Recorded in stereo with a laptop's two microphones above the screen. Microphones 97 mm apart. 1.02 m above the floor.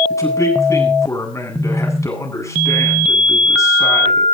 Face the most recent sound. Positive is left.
turn(degrees=30)  # may be behind; listen again after turning